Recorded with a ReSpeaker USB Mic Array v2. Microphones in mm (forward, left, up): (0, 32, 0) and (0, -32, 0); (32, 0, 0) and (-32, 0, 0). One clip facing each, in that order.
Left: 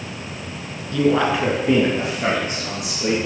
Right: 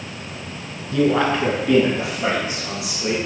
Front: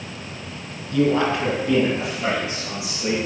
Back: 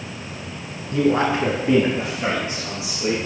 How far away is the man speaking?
About 1.3 m.